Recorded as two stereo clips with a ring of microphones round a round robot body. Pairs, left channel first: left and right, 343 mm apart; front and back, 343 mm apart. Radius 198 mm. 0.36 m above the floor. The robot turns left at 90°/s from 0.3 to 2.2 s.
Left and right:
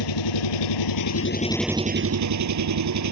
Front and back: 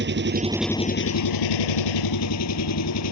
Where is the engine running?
120° left; by 3.1 s 50° right.